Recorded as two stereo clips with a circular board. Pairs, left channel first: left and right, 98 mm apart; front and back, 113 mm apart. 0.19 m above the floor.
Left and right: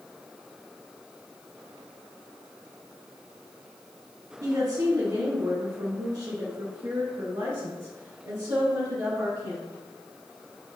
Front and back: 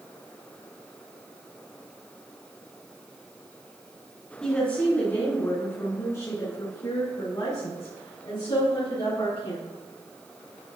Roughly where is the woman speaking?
Right.